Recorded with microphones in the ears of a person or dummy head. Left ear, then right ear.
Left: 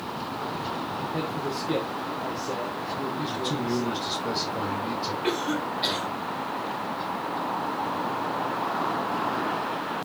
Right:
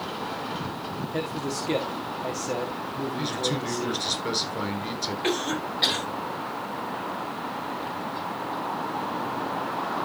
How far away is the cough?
About 6 m.